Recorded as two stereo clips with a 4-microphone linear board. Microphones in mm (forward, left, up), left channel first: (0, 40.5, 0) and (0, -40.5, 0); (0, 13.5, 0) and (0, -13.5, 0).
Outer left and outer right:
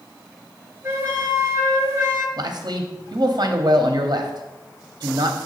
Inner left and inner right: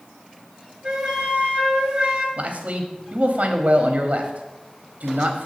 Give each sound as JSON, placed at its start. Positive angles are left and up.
{"t": 0.8, "sound": "a flute", "side_deg": -30, "distance_m": 1.3}
{"t": 2.4, "sound": "a man speaking", "side_deg": -50, "distance_m": 0.7}